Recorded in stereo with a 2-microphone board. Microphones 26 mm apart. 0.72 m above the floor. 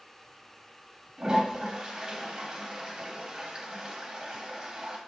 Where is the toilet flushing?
30° right (ahead or behind), 0.7 m.